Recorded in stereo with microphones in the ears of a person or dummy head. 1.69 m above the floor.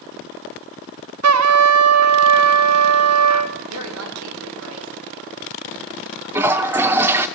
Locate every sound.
1.2 s a trumpet: 90° right, 1.0 m
3.7 s a woman speaking: 80° right, 4 m
6.3 s a toilet flushing: 15° right (ahead or behind), 0.8 m